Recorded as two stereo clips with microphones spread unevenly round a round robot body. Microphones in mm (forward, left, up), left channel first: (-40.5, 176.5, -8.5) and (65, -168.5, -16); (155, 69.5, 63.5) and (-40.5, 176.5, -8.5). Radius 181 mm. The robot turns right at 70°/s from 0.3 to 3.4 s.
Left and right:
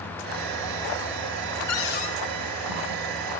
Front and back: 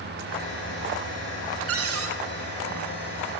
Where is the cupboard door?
155° left, 7.5 m; by 2.1 s 175° right, 7.5 m.